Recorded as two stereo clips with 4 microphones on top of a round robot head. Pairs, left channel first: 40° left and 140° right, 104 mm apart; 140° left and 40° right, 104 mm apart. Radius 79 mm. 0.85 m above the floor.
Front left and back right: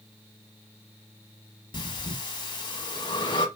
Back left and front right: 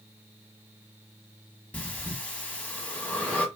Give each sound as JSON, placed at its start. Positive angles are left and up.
{"t": 1.7, "sound": "breathing", "azimuth_deg": 70, "distance_m": 1.3}